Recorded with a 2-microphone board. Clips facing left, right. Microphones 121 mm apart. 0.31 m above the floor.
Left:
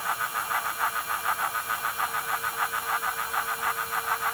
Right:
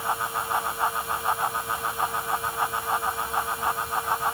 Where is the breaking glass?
No breaking glass in this recording.